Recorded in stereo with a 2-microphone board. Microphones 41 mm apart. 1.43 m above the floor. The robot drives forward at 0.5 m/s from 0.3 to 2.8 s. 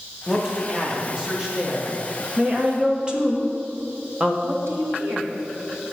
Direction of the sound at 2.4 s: 20° right (ahead or behind).